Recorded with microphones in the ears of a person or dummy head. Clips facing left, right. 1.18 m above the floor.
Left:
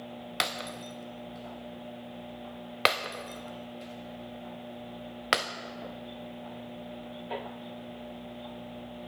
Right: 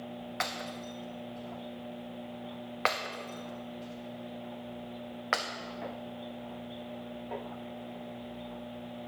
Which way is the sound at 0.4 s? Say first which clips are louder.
Left 2 dB; 30° left (ahead or behind).